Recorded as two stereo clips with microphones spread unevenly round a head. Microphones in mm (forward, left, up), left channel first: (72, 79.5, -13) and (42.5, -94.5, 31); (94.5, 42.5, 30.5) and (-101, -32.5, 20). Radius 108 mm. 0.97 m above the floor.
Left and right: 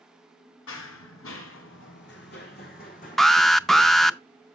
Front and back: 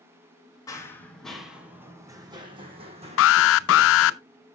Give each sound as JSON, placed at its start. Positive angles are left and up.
{"t": 0.7, "sound": "running footsteps", "azimuth_deg": 90, "distance_m": 1.8}
{"t": 3.2, "sound": "an alarm", "azimuth_deg": -5, "distance_m": 0.6}